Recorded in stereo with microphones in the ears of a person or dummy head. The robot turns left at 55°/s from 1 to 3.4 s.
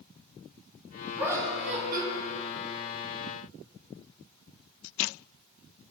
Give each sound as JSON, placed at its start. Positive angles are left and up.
{"t": 1.2, "sound": "laughter", "azimuth_deg": -10, "distance_m": 2.5}